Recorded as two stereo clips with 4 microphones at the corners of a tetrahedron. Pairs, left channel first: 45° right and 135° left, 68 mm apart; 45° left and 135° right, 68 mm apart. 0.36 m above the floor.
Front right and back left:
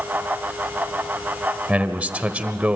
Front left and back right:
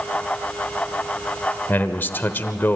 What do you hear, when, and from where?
1.7 s a man speaking: 80° left, 1.0 m